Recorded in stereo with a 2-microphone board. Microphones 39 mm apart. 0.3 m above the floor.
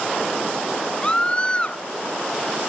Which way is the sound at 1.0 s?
30° left (ahead or behind).